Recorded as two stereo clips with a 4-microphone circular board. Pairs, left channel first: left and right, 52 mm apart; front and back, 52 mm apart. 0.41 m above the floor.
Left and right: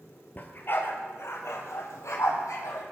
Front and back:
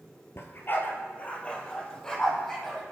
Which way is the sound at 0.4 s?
35° left.